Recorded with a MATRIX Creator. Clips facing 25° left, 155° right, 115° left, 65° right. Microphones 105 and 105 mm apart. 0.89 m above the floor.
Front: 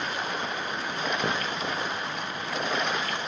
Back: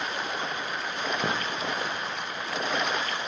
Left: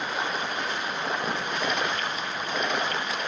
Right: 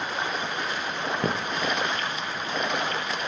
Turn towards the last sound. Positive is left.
turn(degrees=-70)